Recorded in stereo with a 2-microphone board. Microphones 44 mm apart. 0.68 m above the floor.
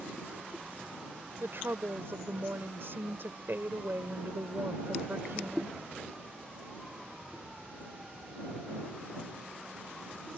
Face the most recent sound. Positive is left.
turn(degrees=-65)  # may be behind; listen again after turning